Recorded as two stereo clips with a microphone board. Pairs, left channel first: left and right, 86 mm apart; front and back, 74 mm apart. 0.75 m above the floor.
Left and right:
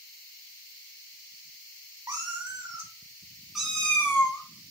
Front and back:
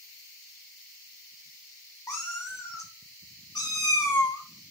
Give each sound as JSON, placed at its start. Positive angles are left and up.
{"t": 2.1, "sound": "a cat meowing", "azimuth_deg": -45, "distance_m": 1.3}